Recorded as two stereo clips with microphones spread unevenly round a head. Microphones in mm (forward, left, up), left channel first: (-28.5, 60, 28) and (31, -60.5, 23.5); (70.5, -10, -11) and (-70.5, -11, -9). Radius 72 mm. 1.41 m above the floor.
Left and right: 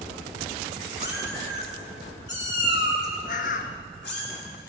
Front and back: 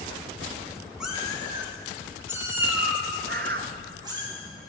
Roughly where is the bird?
Behind left.